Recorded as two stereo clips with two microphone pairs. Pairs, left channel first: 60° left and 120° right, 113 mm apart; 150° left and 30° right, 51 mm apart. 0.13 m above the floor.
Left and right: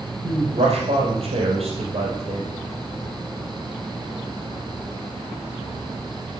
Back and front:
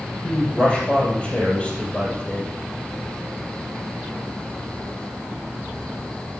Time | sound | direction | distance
0.2 | a man speaking | 145° right | 4 m